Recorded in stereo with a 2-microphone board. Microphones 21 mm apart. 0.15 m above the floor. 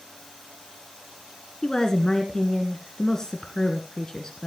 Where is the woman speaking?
30° left (ahead or behind), 1.4 m.